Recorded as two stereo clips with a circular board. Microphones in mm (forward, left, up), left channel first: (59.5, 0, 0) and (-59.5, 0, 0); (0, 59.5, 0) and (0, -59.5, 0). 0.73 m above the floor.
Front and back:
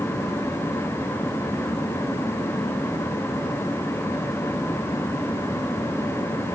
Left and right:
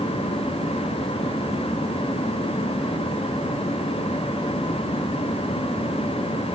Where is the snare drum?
No snare drum in this recording.